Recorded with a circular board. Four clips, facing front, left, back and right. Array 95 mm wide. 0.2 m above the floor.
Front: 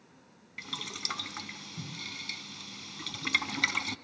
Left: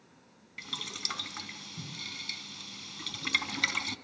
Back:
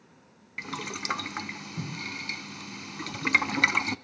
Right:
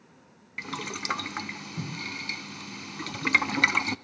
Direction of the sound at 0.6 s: 130° right.